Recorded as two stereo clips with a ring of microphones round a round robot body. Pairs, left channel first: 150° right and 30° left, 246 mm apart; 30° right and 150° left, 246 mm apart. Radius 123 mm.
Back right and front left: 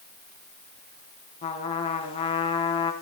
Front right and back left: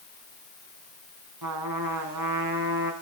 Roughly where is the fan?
No fan in this recording.